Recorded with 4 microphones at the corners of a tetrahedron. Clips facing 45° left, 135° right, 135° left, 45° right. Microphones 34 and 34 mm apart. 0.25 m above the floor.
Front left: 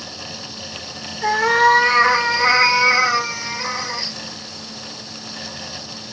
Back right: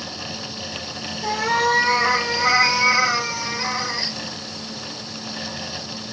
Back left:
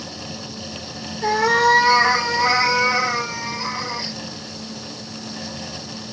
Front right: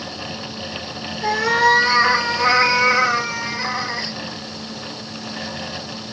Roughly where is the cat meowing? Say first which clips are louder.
Front left 6 dB, even; ahead left.